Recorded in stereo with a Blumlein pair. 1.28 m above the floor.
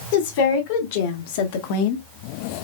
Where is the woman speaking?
50° left, 2.5 m; by 2.0 s 45° left, 0.8 m.